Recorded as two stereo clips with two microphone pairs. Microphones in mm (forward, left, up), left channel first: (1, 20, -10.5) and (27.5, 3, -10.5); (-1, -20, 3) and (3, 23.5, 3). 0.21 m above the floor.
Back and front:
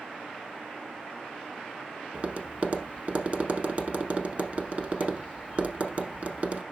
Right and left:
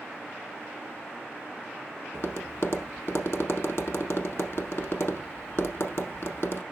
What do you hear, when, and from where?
2.1 s tapping: 75° right, 1.1 m